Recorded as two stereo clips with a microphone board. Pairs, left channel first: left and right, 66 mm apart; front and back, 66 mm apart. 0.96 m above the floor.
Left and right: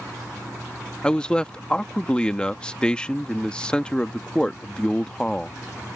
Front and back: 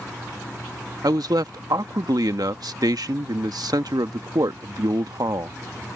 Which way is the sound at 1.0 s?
165° left.